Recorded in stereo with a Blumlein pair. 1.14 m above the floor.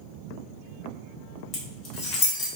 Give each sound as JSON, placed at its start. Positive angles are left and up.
{"t": 1.5, "sound": "keys jangling", "azimuth_deg": 30, "distance_m": 1.8}